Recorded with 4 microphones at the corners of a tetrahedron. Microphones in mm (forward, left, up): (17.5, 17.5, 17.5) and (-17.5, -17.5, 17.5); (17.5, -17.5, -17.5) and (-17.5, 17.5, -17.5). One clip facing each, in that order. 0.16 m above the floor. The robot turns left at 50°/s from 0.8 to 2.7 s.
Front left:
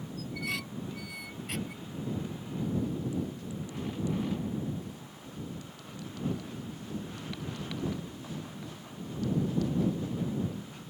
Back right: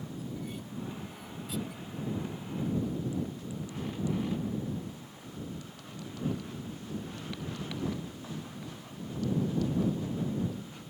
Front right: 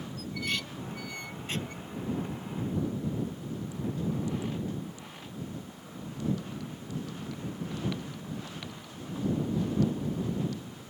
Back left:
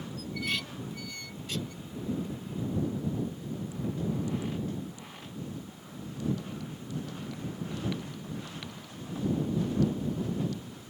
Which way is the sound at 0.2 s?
45° left.